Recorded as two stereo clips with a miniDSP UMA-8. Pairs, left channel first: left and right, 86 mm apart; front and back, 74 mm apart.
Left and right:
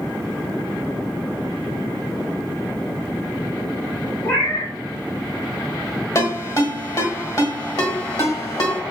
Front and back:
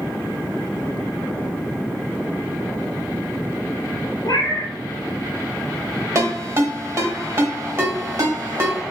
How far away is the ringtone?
About 1.3 m.